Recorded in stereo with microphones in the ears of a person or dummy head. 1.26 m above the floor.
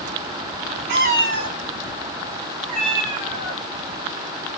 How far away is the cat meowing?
About 0.7 m.